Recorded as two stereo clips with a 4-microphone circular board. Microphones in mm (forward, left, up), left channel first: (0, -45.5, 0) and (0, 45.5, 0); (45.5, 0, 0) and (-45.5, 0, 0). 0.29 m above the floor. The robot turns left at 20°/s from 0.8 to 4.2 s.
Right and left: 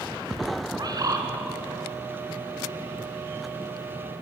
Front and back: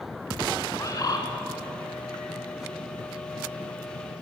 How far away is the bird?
About 2.5 m.